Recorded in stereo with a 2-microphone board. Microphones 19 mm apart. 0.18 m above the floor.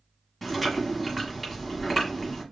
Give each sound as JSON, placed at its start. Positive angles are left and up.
{"t": 0.4, "sound": "chewing", "side_deg": 5, "distance_m": 1.6}